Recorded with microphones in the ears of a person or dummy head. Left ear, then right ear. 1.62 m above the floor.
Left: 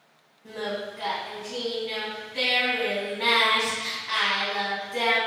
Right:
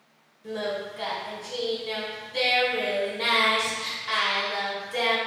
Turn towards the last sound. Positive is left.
turn(degrees=-35)  # may be behind; listen again after turning